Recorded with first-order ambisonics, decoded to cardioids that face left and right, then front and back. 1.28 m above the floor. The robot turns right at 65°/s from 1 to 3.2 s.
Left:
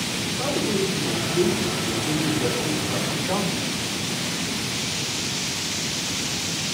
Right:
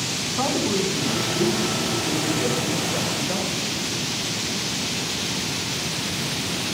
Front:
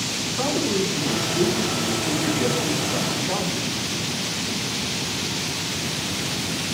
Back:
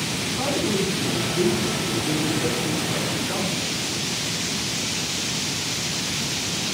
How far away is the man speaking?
About 5.5 m.